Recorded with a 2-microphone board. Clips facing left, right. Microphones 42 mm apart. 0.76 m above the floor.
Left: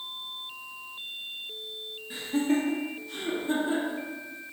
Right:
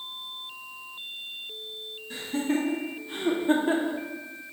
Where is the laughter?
10° left (ahead or behind), 1.3 m; by 4.0 s 50° right (ahead or behind), 1.6 m.